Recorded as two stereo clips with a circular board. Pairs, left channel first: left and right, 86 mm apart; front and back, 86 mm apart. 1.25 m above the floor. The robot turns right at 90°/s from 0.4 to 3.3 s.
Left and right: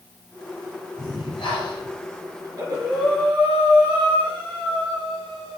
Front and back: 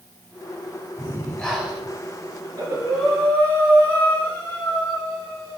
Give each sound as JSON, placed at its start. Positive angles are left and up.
{"t": 1.0, "sound": "breathing", "azimuth_deg": 40, "distance_m": 3.5}
{"t": 2.4, "sound": "breathing", "azimuth_deg": -145, "distance_m": 5.0}